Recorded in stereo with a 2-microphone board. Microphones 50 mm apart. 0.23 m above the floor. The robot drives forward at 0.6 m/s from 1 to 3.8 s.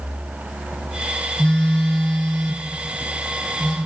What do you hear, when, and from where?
1.4 s a phone buzzing: 20° left (ahead or behind), 0.6 m; by 3.8 s 5° left (ahead or behind), 2 m